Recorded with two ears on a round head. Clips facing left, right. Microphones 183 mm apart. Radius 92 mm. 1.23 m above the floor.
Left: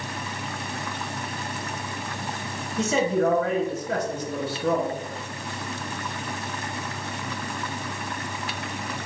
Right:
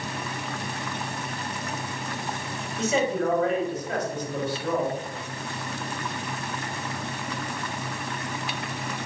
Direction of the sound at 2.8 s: 75° left (ahead or behind).